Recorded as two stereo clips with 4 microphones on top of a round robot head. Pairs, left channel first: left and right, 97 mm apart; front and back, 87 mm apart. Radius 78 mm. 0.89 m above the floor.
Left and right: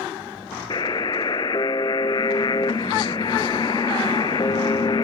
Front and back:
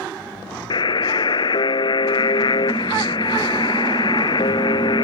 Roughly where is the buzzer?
Ahead left.